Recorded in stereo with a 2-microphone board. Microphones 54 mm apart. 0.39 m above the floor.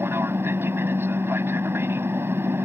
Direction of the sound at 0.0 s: 45° right (ahead or behind).